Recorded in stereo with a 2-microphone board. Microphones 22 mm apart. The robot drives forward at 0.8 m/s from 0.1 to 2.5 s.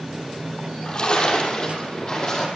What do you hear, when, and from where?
0.6 s a splash: 50° left (ahead or behind), 4 m; by 2.5 s 35° left (ahead or behind), 5 m